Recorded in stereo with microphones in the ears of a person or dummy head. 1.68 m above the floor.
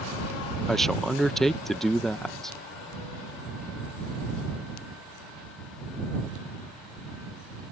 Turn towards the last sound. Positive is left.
turn(degrees=5)  # may be behind; listen again after turning